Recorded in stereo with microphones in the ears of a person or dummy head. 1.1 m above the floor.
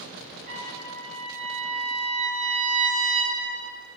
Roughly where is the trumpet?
Right.